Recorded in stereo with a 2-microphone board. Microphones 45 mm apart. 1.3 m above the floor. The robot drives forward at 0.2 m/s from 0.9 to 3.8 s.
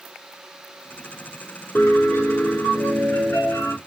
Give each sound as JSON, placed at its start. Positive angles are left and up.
{"t": 1.8, "sound": "a piano", "side_deg": 65, "distance_m": 0.9}